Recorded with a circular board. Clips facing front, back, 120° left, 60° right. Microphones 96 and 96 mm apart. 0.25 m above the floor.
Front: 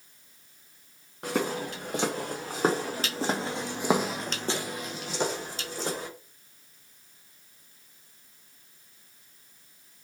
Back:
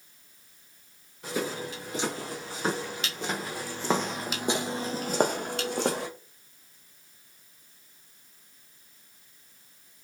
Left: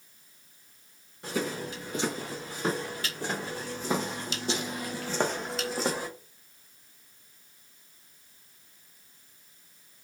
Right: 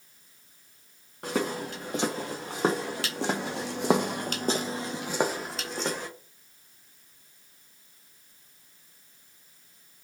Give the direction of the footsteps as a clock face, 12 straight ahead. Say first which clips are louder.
Front 3 dB, right 3 dB; 1 o'clock.